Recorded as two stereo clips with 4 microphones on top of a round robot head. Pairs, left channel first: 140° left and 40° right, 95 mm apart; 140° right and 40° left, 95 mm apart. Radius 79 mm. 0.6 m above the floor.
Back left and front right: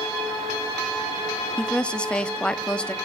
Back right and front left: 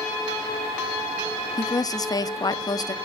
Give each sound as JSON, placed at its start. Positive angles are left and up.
{"t": 1.6, "sound": "a woman speaking", "azimuth_deg": -145, "distance_m": 0.7}